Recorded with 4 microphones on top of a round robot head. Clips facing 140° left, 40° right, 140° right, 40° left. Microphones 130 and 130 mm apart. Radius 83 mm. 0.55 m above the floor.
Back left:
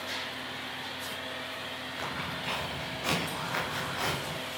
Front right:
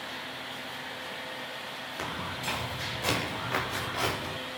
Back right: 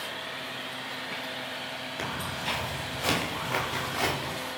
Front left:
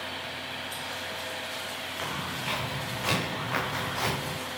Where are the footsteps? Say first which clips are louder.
Front right 1 dB, back right 1 dB; 85° right, 7.5 m; by 4.4 s 65° right, 7 m.